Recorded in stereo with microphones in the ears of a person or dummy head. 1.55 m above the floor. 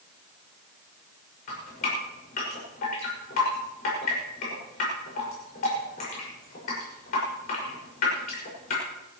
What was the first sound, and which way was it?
Dripping, 45° left (ahead or behind).